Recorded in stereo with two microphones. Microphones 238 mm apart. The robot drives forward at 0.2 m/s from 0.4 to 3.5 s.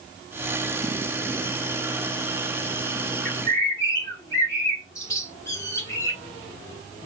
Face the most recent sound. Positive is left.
turn(degrees=15)  # may be behind; listen again after turning